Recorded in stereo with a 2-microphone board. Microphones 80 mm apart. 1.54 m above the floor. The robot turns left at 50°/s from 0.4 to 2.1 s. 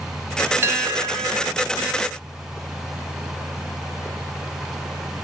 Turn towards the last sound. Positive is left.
turn(degrees=-100)